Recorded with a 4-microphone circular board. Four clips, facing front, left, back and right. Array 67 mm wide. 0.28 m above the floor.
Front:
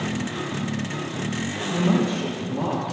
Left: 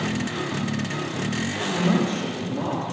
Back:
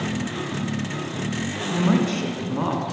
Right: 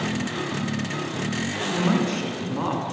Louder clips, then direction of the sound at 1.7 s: Even, back 1 dB; 135° right.